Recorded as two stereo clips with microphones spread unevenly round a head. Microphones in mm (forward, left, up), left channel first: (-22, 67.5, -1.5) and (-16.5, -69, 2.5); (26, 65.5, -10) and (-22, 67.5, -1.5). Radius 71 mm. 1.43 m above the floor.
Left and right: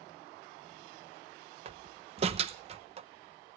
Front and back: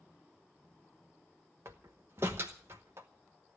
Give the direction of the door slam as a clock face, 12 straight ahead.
4 o'clock.